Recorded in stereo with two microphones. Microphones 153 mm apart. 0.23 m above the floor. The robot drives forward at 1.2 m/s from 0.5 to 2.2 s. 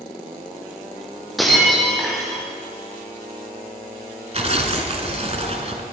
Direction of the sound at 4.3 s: 45° right (ahead or behind).